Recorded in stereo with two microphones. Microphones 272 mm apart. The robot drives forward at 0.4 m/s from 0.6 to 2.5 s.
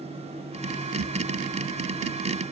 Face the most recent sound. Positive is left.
No sound to turn to.